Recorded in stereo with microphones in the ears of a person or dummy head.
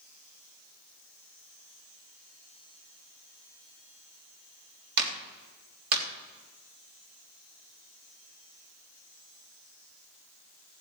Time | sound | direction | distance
5.0 | a clap | 65° right (ahead or behind) | 3 m